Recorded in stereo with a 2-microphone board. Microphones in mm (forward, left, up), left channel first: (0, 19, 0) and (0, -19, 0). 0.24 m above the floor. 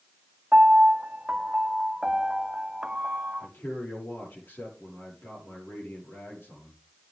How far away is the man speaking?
About 7 m.